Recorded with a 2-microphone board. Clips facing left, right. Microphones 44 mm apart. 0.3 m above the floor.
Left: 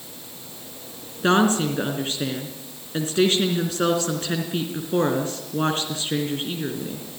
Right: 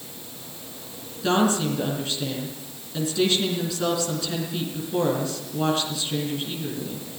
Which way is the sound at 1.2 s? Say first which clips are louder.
Left 3 dB; 45° left (ahead or behind).